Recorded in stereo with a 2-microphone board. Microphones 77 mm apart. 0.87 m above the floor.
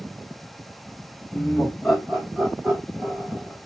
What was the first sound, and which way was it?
Laughter, 10° left (ahead or behind).